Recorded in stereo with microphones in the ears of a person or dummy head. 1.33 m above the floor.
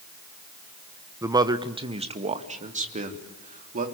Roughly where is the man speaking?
Centre.